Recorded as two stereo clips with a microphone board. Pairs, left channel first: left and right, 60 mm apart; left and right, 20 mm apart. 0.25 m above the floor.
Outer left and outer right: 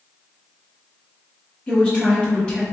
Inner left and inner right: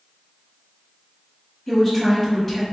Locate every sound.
1.7 s a woman speaking: 20° left (ahead or behind), 1.2 m